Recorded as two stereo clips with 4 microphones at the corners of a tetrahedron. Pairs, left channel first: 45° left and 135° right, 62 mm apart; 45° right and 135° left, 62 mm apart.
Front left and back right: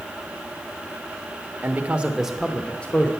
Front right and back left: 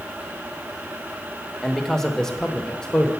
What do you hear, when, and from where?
1.6 s a man speaking: 125° right, 0.9 m; by 3.1 s 20° left, 0.9 m